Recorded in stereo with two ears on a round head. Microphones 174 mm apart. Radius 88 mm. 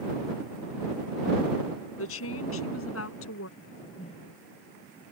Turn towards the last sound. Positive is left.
turn(degrees=30)  # may be behind; listen again after turning